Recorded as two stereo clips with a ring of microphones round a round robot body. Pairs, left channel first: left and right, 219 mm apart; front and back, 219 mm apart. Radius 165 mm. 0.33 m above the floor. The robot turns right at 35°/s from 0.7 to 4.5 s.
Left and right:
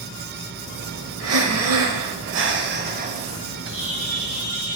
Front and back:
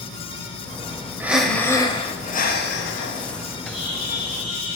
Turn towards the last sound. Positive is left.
turn(degrees=55)